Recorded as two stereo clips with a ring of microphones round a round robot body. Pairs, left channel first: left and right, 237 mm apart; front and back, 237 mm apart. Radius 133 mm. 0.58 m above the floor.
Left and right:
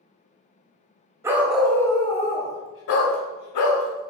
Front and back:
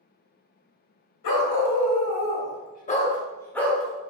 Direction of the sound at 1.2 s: 10° right.